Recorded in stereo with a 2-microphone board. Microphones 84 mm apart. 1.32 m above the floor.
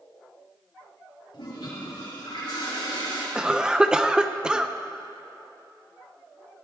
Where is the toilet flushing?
75° left (ahead or behind), 5 m.